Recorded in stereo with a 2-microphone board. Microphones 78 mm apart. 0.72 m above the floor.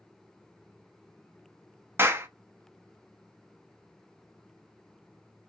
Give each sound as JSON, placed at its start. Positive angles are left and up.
{"t": 2.0, "sound": "a clap", "side_deg": -30, "distance_m": 0.7}